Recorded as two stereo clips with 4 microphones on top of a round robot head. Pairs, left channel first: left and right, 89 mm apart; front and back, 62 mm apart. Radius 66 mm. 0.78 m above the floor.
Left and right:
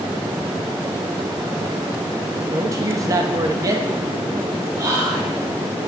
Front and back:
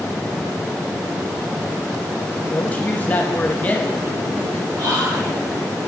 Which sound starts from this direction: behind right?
Whispering, at 4.8 s.